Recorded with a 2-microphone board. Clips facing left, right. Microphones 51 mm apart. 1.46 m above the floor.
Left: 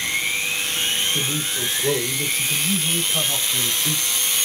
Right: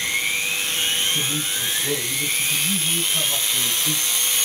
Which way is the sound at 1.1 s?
55° left (ahead or behind).